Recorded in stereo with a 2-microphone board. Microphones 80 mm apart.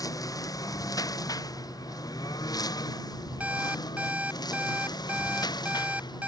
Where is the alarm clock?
15° right (ahead or behind).